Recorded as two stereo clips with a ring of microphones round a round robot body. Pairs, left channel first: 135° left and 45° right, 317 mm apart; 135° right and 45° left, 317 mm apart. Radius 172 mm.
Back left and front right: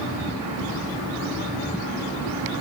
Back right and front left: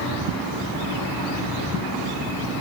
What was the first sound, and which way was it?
Only background noise.